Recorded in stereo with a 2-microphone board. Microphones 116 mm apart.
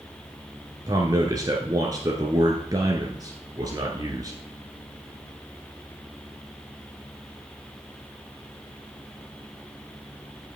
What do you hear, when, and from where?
0.9 s a man speaking: 30° right (ahead or behind), 1.3 m